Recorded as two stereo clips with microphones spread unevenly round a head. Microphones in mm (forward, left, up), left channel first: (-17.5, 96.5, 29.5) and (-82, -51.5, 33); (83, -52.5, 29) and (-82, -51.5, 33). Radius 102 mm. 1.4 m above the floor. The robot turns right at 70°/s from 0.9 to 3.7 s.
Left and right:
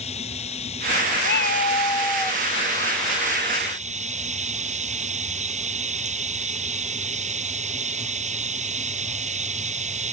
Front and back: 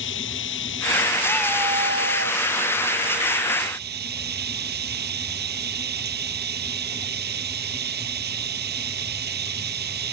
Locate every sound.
0.0 s running water: 5° left; by 10.1 s 160° right
1.2 s a cat meowing: 80° left; by 2.4 s 160° left